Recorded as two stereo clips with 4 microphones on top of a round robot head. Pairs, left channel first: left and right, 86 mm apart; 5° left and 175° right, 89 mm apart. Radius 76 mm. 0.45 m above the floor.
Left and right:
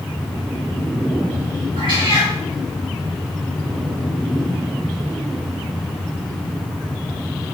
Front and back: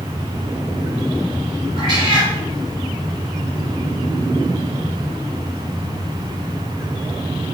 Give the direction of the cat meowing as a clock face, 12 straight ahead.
4 o'clock.